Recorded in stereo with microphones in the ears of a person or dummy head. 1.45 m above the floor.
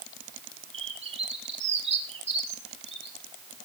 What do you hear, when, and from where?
0.7 s a bird: 35° right (ahead or behind), 1.8 m